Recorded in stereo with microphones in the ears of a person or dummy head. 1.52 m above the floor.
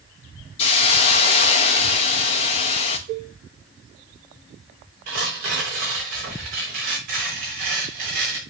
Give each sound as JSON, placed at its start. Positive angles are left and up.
{"t": 0.6, "sound": "a hiss", "side_deg": 40, "distance_m": 0.9}
{"t": 3.1, "sound": "a cowbell", "side_deg": -45, "distance_m": 4.5}
{"t": 5.1, "sound": "tearing paper", "side_deg": -50, "distance_m": 2.5}